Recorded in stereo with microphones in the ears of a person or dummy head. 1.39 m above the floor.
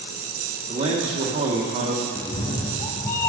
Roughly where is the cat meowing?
Centre.